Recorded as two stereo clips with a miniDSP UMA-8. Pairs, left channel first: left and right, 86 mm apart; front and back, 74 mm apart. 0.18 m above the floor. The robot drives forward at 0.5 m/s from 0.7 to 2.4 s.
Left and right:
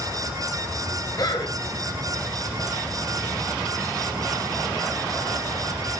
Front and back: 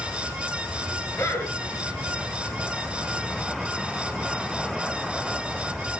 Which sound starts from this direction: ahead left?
A man speaking, at 1.2 s.